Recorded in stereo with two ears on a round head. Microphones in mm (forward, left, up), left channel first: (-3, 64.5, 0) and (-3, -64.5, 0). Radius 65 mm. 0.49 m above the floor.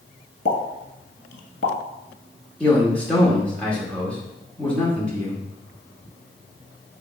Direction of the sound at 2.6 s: 10° left (ahead or behind).